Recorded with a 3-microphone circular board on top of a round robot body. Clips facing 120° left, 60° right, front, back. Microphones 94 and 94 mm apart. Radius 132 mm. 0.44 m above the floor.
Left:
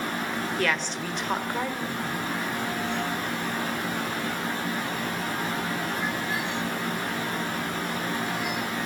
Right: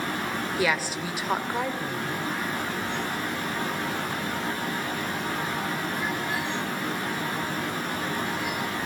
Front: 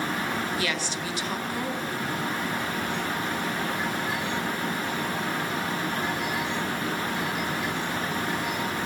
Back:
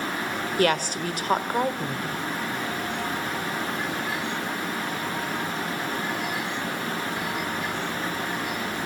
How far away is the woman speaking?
About 1.7 m.